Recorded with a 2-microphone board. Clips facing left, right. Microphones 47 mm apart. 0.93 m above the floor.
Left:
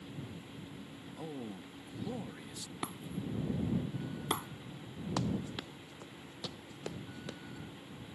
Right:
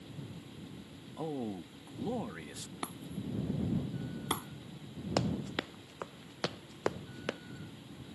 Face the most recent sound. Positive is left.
turn(degrees=-70)  # may be behind; listen again after turning